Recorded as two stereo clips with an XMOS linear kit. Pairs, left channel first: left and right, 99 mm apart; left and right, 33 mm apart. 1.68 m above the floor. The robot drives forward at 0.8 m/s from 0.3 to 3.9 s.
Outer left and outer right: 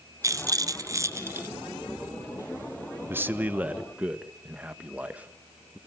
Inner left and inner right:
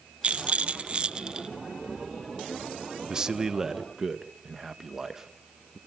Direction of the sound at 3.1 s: 20° right (ahead or behind).